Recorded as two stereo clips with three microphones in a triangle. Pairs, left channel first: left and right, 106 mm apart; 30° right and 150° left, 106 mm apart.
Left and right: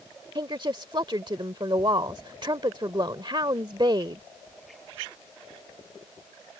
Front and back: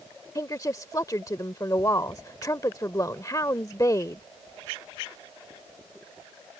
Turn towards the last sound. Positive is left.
turn(degrees=-75)